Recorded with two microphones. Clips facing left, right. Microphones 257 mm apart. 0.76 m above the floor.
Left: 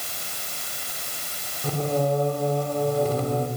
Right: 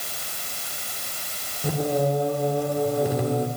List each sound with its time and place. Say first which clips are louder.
1.6 s singing: right 1 dB; 15° right (ahead or behind), 2.5 m